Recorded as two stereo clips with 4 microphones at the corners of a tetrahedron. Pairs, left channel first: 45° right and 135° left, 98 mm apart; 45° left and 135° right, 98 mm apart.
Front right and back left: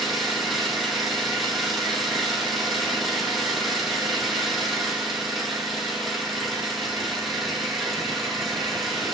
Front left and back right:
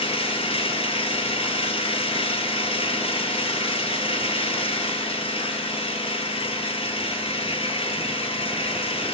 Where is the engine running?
45° left, 1.2 m.